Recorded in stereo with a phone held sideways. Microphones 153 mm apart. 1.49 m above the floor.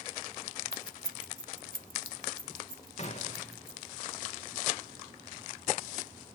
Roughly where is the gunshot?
Left.